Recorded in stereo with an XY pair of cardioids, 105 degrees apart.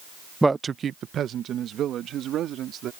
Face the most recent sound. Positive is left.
turn(degrees=-75)